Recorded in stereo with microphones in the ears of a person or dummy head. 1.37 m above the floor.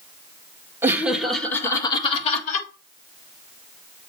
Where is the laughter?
15° right (ahead or behind), 1.8 m; by 2.7 s 45° left (ahead or behind), 2 m.